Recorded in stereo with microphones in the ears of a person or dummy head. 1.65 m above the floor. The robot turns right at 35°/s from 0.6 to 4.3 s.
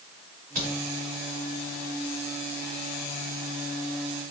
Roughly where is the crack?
Right.